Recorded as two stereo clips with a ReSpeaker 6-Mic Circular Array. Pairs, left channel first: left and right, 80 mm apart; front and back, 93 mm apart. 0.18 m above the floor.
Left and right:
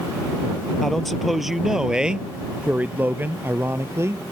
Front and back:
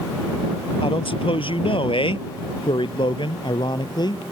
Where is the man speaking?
5° left; by 4.2 s 40° right.